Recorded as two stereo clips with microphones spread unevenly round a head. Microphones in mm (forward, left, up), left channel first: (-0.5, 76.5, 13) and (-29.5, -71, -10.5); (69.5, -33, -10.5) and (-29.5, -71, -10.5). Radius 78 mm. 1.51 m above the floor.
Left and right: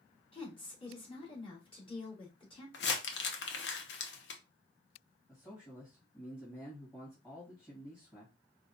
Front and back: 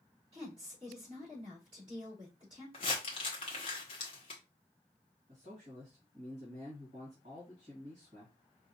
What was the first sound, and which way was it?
A woman speaking, 135° left.